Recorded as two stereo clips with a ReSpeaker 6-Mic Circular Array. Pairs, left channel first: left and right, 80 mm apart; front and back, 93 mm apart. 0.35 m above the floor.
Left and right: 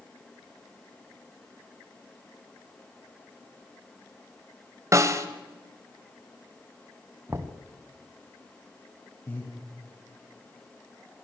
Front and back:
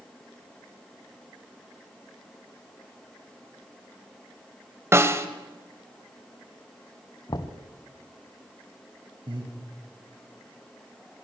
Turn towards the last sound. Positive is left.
turn(degrees=150)